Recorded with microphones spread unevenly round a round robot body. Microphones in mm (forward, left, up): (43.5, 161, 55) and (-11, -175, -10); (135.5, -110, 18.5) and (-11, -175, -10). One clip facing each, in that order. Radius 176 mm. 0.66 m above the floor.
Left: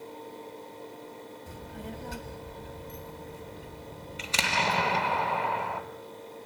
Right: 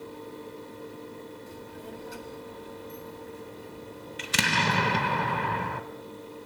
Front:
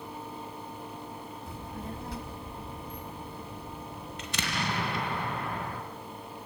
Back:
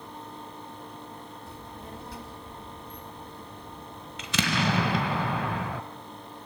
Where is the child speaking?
45° left, 2.5 m; by 5.2 s 90° left, 3.5 m.